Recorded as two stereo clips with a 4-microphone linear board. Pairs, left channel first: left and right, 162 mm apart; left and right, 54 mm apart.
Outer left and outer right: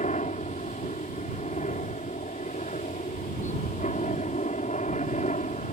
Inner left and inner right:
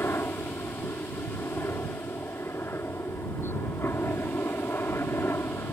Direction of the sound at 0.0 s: 50° left (ahead or behind).